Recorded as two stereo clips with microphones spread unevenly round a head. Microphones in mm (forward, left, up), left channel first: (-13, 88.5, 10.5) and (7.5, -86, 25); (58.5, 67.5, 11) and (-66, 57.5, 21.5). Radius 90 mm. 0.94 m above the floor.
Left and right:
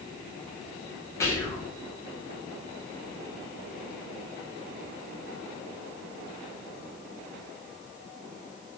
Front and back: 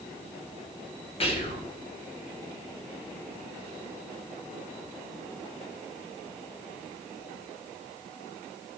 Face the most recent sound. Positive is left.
turn(degrees=30)